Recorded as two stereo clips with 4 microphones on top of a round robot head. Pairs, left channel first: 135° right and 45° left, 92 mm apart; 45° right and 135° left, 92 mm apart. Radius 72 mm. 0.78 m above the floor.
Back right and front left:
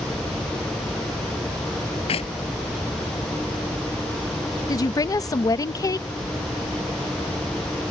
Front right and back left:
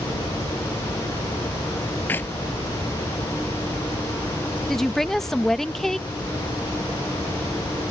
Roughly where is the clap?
Behind right.